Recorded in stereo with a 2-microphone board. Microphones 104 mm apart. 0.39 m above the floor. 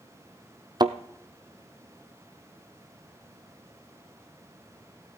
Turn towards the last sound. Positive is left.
turn(degrees=-45)  # may be behind; listen again after turning